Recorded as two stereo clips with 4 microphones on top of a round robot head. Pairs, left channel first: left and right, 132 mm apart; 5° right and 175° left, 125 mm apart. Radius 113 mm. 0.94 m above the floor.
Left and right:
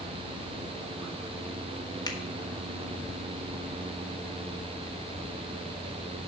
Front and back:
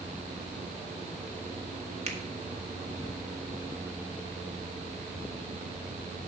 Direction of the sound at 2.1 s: 150° left.